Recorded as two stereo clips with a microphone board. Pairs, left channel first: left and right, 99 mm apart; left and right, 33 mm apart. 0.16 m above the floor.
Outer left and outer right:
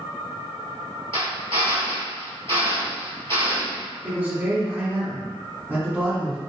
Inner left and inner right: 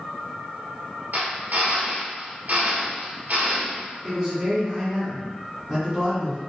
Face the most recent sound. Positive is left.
turn(degrees=-20)  # may be behind; listen again after turning